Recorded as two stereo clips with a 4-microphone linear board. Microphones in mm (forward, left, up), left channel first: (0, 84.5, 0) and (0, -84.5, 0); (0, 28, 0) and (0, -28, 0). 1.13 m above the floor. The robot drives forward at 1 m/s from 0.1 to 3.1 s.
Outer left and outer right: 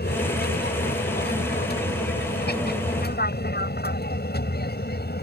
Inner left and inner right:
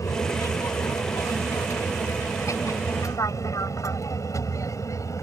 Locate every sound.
0.0 s an aircraft: 75° left (ahead or behind)